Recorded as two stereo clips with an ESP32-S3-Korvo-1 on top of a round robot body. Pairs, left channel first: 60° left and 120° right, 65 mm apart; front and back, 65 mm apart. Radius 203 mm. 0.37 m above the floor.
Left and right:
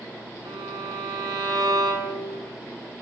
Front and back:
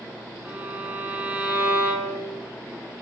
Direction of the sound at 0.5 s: 115° right.